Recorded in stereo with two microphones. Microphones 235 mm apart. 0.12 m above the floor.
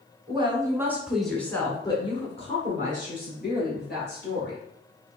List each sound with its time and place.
0.3 s a woman speaking: 20° right (ahead or behind), 1.3 m; by 4.6 s 45° left (ahead or behind), 2.5 m